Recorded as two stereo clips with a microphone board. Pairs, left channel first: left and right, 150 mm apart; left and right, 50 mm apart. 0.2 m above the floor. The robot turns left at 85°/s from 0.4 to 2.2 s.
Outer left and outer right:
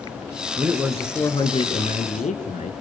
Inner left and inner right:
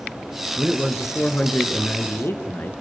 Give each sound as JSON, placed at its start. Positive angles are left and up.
{"t": 0.6, "sound": "a man speaking", "azimuth_deg": -145, "distance_m": 3.5}